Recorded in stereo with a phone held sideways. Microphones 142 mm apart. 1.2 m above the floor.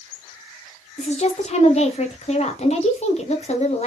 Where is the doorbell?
I don't hear a doorbell.